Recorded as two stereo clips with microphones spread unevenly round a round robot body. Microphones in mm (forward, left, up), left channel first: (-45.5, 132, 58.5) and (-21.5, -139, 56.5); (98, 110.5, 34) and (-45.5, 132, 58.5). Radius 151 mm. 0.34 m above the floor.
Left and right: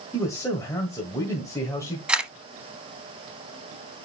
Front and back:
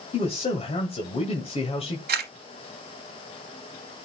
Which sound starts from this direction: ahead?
A man speaking, at 0.1 s.